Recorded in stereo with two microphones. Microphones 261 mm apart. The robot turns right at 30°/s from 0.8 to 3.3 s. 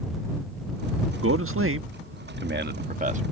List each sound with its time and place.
1.2 s a man speaking: 55° right (ahead or behind); by 3.2 s 25° right (ahead or behind)